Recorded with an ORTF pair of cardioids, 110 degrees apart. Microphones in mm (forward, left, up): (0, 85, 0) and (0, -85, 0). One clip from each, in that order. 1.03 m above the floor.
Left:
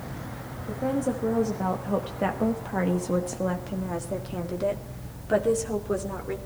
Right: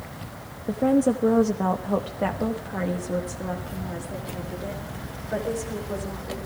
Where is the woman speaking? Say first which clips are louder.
Right 6 dB; 45° right, 1.2 m; by 6.4 s 55° left, 3 m.